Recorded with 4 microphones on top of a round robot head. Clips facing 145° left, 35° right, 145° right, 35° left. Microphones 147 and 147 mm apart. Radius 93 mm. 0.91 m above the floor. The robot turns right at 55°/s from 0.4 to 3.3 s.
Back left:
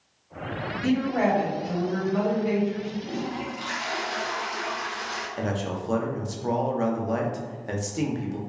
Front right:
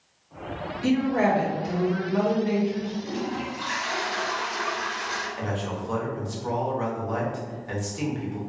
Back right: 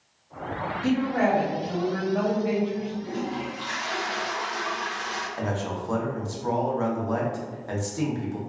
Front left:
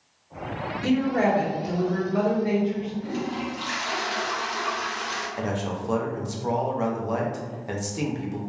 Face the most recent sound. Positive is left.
turn(degrees=110)